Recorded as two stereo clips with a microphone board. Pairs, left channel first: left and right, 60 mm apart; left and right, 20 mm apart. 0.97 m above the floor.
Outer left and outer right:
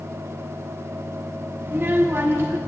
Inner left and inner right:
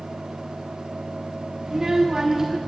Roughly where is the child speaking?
Right.